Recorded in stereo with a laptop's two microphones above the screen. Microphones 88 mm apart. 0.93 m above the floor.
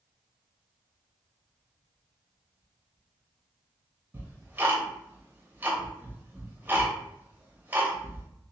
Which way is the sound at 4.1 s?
20° right (ahead or behind).